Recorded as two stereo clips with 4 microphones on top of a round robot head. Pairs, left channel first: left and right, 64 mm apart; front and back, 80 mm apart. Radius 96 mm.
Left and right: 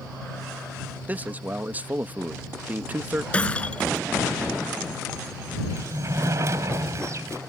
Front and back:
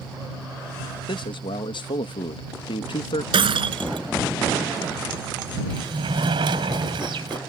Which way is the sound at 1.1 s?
25° right.